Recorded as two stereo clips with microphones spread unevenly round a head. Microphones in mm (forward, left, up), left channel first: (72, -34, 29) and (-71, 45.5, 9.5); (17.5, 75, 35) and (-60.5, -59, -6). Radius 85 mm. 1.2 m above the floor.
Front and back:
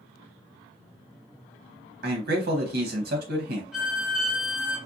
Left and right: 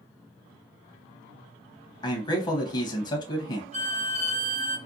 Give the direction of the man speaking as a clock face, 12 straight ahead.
8 o'clock.